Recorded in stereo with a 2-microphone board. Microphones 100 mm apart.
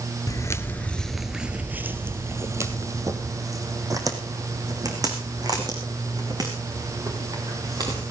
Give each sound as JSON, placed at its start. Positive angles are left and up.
{"t": 0.3, "sound": "footsteps", "side_deg": 35, "distance_m": 0.8}